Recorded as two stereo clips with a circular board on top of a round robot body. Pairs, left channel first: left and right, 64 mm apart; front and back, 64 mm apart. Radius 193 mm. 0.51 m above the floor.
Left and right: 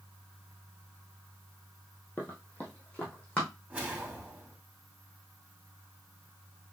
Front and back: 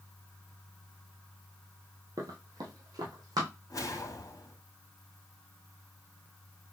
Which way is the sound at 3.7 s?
20° right.